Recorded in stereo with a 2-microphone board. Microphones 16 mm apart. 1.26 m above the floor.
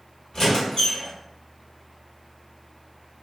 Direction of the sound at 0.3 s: 40° left (ahead or behind).